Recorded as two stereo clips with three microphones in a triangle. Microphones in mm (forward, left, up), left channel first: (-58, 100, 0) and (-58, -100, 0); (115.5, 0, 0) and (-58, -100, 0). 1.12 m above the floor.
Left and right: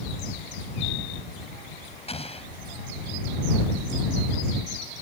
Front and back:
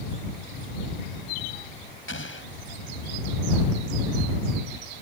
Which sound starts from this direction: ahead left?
An explosion, at 2.1 s.